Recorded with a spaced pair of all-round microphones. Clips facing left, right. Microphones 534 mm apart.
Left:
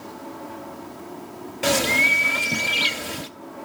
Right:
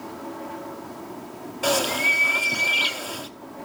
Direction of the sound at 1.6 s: 45° left (ahead or behind).